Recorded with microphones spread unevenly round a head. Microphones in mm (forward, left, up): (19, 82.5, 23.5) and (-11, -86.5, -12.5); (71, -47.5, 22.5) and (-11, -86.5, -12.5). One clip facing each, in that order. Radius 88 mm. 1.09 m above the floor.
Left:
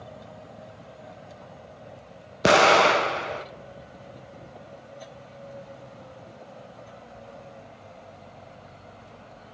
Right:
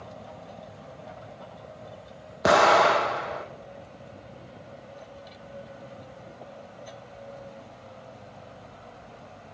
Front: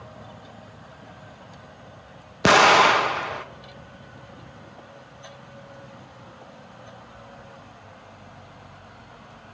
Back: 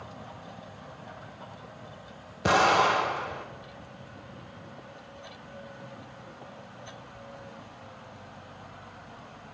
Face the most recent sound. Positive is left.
turn(degrees=20)